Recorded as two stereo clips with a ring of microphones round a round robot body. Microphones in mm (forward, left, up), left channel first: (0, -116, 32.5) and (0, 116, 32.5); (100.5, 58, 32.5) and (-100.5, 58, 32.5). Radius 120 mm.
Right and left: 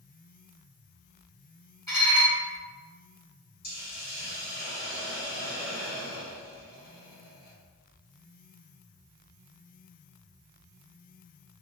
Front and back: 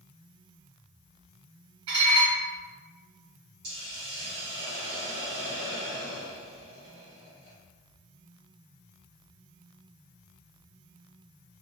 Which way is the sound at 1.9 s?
170° right.